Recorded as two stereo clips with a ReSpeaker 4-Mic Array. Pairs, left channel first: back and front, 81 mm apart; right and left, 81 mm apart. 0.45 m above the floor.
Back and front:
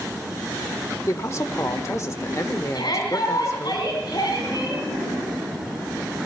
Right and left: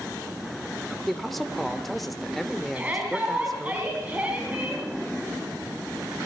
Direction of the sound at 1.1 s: 175° right.